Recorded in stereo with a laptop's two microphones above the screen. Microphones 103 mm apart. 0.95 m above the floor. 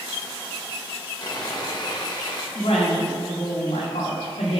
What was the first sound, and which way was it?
Sawing, 40° left (ahead or behind).